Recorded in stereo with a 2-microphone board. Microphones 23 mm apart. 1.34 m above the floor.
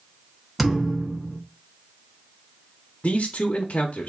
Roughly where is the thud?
Centre.